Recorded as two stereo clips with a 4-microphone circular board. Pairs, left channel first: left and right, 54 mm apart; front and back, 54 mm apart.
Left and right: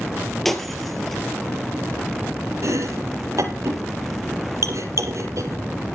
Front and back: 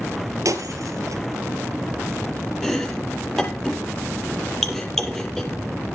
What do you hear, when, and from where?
0.5 s breaking glass: 175° left, 2.5 m
2.6 s chopping: 80° right, 5 m